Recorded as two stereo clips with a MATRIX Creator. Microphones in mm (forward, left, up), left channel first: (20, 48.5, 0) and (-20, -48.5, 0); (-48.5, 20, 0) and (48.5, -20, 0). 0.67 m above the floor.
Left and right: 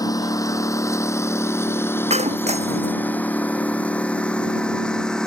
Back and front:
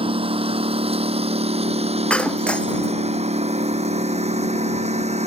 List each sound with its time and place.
0.0 s a lawn mower: 10° left; by 5.3 s 15° right
2.1 s breaking glass: 120° right